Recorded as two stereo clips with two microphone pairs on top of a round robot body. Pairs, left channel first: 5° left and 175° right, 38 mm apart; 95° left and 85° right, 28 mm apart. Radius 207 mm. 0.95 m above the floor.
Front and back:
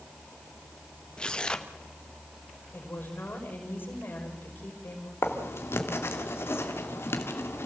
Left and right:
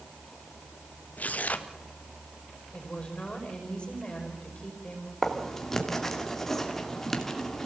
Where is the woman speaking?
40° left, 5.5 m.